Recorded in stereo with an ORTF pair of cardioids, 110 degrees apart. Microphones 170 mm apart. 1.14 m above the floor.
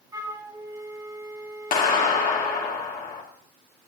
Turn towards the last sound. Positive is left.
turn(degrees=50)